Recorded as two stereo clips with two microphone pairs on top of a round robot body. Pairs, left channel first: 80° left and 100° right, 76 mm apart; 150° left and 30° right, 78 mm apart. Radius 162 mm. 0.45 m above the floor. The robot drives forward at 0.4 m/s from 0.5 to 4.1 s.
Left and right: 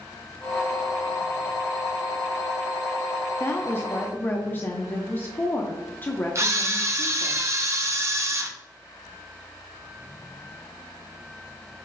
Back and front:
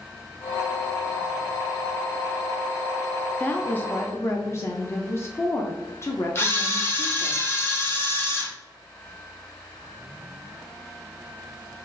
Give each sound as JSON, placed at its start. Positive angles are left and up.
{"t": 3.4, "sound": "a woman speaking", "azimuth_deg": 75, "distance_m": 0.8}
{"t": 6.3, "sound": "a camera shutter", "azimuth_deg": -150, "distance_m": 0.8}